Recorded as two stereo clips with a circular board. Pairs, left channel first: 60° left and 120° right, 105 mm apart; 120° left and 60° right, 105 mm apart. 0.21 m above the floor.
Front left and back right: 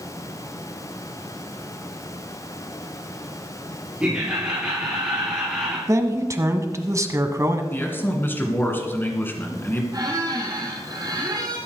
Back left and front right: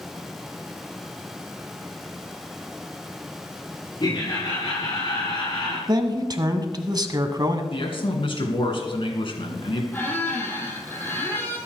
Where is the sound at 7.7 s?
125° left, 2.5 m.